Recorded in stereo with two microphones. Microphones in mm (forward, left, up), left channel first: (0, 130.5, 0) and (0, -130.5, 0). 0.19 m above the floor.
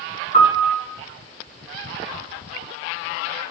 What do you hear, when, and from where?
0.3 s a piano: 25° left (ahead or behind), 2.5 m